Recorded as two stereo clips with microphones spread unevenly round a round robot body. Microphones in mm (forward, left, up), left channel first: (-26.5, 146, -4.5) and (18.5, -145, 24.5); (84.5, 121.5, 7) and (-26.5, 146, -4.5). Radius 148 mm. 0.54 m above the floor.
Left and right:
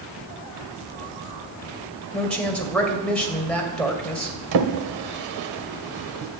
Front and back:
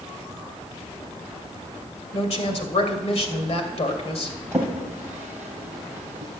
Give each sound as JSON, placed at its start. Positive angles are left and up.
{"t": 2.1, "sound": "a woman speaking", "azimuth_deg": 15, "distance_m": 2.5}
{"t": 4.5, "sound": "a drawer", "azimuth_deg": -110, "distance_m": 1.6}